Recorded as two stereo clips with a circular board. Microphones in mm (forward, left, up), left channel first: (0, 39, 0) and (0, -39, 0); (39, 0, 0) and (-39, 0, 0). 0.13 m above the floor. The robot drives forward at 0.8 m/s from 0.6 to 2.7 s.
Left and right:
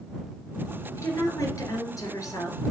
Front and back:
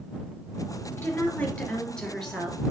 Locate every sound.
1.0 s a woman speaking: 50° left, 2.5 m; by 2.6 s 95° left, 2 m